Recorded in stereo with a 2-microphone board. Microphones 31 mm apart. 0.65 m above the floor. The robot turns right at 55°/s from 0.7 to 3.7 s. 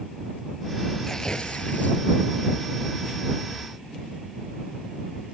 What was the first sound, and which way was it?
Tearing paper, 10° left.